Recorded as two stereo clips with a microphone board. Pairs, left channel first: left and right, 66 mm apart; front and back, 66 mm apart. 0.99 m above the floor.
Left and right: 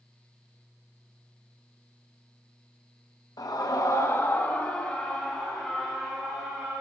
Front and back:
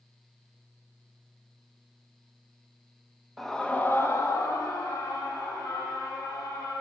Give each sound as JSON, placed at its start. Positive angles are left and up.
{"t": 3.4, "sound": "a scream", "azimuth_deg": 90, "distance_m": 1.0}